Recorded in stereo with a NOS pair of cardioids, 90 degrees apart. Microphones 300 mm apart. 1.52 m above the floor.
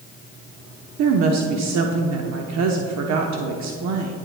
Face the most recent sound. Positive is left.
turn(degrees=-65)